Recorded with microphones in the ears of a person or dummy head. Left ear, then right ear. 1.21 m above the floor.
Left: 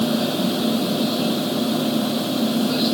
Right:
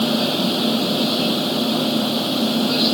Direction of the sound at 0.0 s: 15° right (ahead or behind).